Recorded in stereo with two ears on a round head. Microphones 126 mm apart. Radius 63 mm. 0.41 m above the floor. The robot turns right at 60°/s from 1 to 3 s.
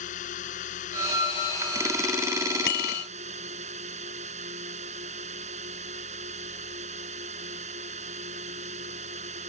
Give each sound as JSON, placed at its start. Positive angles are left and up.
{"t": 0.0, "sound": "a drone", "azimuth_deg": 115}
{"t": 2.7, "sound": "a bicycle bell", "side_deg": 85}